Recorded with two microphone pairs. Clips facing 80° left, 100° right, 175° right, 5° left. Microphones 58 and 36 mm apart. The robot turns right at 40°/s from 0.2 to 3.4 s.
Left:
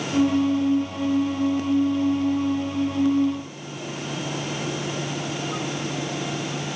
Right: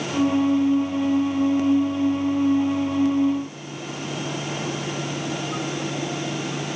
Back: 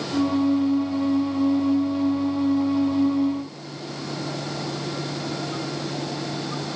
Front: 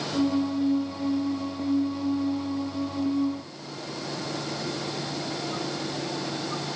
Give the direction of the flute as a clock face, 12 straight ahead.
I don't hear a flute.